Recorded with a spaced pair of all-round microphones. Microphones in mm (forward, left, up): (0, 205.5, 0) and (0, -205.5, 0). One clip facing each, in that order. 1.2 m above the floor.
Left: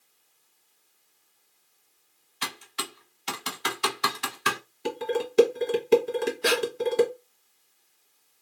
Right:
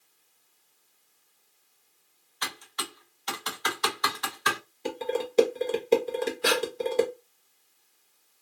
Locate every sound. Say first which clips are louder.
2.4 s typing on a keyboard: left 2 dB; 45° left (ahead or behind), 0.7 m
4.8 s dishes clattering: left 2 dB; 25° left (ahead or behind), 0.7 m
6.4 s breathing: left 1 dB; 25° right (ahead or behind), 1.0 m